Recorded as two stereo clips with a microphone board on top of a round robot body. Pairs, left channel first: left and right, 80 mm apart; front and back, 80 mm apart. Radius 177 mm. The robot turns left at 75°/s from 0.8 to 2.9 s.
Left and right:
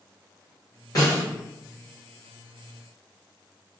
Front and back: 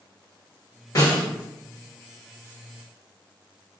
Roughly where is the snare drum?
Ahead left.